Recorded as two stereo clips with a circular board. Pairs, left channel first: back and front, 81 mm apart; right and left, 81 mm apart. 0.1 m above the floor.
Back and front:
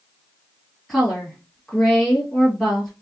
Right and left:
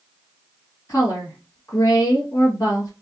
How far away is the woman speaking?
About 2.5 m.